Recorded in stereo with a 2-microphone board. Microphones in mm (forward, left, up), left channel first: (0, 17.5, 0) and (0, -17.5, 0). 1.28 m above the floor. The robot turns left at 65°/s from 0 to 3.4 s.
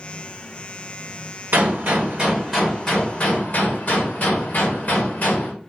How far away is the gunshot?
About 1.4 m.